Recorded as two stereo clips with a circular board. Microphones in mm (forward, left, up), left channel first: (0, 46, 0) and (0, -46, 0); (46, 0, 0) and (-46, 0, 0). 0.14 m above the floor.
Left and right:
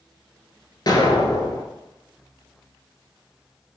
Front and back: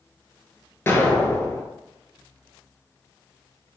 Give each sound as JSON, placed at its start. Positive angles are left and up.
{"t": 0.9, "sound": "an explosion", "azimuth_deg": 60, "distance_m": 0.9}